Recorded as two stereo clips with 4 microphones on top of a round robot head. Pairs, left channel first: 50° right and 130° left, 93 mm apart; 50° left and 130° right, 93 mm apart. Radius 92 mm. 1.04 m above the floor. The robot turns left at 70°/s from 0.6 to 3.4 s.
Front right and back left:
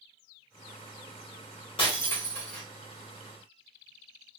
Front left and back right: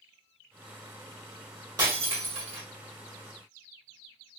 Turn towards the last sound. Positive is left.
turn(degrees=165)